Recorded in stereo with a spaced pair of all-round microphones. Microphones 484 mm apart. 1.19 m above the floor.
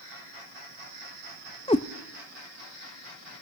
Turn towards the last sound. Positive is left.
turn(degrees=10)  # may be behind; listen again after turning